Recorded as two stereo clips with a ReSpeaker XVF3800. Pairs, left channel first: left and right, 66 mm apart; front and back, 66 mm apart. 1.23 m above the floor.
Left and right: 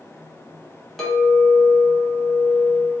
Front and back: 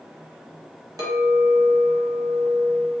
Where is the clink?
175° left, 1.4 m.